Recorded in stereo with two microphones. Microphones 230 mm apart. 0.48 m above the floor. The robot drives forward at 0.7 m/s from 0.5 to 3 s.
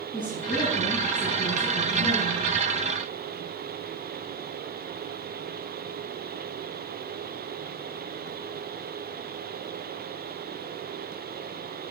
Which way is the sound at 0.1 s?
10° left (ahead or behind).